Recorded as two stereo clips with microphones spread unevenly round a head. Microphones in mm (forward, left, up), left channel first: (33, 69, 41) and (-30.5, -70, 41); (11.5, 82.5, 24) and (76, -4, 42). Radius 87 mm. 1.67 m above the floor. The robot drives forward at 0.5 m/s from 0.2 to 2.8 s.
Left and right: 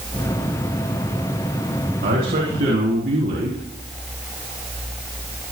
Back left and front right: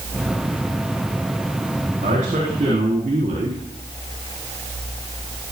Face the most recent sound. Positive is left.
turn(degrees=-95)